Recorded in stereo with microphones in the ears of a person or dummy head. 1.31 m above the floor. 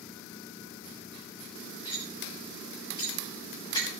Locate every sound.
1.9 s cutlery clinking: 15° left (ahead or behind), 4 m